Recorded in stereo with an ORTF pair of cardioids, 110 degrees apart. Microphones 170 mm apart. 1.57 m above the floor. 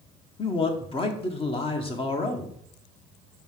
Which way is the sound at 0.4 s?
30° left.